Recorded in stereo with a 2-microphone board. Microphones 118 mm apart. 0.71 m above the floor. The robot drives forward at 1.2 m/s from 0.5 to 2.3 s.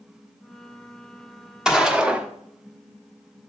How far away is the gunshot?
About 1.3 m.